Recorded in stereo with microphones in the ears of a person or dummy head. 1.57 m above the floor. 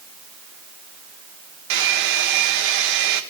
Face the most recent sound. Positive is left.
turn(degrees=-75)  # may be behind; listen again after turning